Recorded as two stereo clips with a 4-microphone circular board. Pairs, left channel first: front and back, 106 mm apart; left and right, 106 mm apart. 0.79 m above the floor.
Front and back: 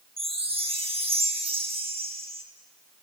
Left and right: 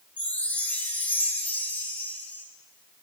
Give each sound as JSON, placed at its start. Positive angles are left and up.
{"t": 0.2, "sound": "a chime", "azimuth_deg": 165, "distance_m": 0.7}